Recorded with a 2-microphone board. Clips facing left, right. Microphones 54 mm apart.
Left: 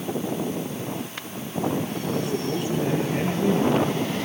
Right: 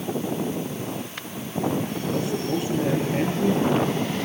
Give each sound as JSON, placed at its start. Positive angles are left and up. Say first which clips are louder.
{"t": 2.1, "sound": "a man speaking", "louder": "right 1 dB", "side_deg": -5, "distance_m": 9.0}